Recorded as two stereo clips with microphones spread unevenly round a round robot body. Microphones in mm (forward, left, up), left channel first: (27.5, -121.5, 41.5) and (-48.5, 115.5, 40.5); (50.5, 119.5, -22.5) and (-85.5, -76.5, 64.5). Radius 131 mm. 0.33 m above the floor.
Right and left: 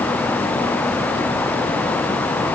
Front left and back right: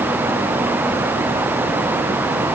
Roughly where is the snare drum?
No snare drum in this recording.